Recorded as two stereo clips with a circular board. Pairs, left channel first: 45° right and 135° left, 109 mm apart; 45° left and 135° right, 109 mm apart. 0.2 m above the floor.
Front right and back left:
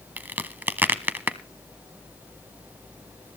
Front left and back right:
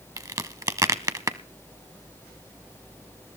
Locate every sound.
0.2 s a crack: 165° right, 0.7 m